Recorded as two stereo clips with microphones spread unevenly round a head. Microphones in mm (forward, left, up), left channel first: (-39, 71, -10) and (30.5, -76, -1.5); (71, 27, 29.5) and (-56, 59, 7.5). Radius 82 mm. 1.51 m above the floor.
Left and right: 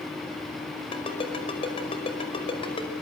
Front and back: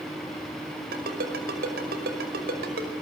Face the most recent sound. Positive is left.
turn(degrees=175)